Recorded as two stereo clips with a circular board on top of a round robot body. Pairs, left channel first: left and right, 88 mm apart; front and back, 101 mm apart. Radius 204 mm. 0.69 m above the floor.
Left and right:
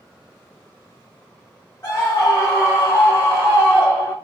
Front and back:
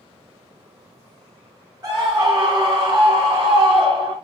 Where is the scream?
130° left, 1.6 m; by 4.2 s 160° left, 2.5 m.